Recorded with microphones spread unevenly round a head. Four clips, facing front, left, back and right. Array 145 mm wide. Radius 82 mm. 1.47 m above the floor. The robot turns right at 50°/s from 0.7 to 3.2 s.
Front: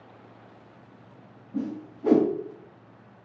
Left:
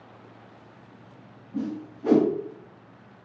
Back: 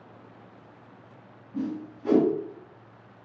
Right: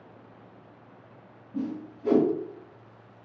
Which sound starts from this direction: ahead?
A whoosh, at 1.5 s.